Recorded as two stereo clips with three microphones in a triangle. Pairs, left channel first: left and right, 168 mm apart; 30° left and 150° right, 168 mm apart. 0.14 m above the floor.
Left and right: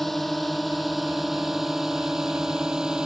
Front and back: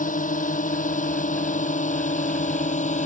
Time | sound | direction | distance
0.0 | a drone | straight ahead | ?